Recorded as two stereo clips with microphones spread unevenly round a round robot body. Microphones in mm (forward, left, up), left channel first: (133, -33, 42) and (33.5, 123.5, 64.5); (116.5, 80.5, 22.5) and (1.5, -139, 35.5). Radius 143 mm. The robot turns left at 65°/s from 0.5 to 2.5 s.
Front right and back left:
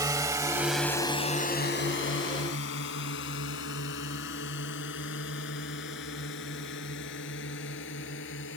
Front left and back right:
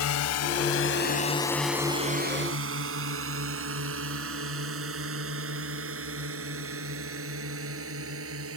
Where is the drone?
50° left; by 8.6 s 85° right.